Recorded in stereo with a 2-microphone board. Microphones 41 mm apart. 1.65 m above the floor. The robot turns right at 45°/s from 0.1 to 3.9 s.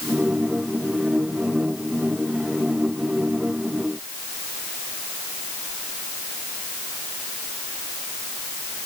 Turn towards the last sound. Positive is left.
No sound to turn to.